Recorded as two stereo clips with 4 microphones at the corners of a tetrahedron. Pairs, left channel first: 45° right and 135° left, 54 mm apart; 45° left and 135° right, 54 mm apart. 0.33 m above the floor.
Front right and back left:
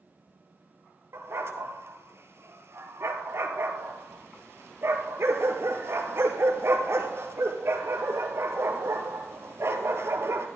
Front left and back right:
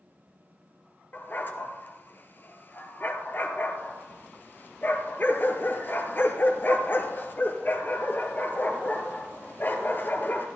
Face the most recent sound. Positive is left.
turn(degrees=95)